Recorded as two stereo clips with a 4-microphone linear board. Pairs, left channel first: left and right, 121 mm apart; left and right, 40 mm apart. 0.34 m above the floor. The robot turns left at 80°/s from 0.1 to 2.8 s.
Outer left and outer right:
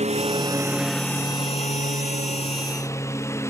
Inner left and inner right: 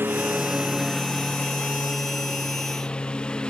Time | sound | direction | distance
0.0 | a lawn mower | 70° right (ahead or behind) | ?